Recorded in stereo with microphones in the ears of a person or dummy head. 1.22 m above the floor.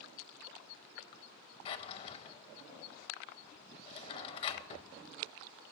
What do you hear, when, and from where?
1.6 s a drawer: 30° left (ahead or behind), 0.6 m